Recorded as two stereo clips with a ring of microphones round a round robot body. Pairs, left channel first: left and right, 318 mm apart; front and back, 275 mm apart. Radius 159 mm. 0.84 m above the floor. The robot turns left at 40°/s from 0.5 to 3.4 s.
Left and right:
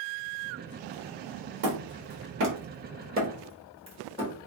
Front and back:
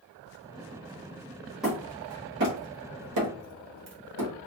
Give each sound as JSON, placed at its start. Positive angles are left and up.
{"t": 1.6, "sound": "hammering", "azimuth_deg": -90, "distance_m": 1.3}